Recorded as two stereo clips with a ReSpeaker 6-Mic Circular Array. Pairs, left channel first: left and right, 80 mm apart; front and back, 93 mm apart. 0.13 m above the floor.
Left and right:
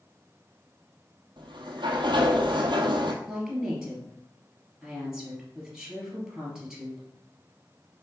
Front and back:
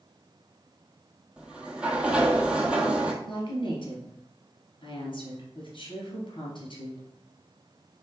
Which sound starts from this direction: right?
A sliding door, at 1.4 s.